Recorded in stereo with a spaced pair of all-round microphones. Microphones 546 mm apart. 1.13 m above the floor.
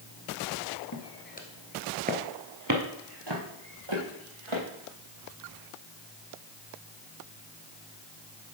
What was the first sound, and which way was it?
Footsteps, 35° left (ahead or behind).